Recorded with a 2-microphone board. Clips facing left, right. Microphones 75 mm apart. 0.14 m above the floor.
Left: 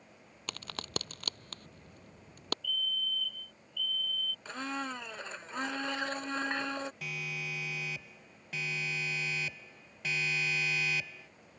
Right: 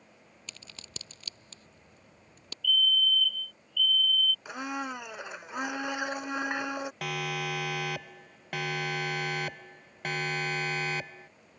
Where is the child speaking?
No child speaking in this recording.